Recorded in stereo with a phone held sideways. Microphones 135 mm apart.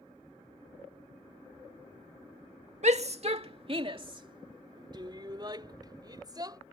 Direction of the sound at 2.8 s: 55° right (ahead or behind).